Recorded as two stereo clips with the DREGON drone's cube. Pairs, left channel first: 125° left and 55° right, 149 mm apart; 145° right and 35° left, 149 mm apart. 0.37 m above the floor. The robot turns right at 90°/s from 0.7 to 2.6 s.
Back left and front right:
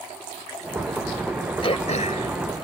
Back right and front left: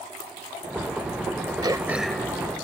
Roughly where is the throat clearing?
Left.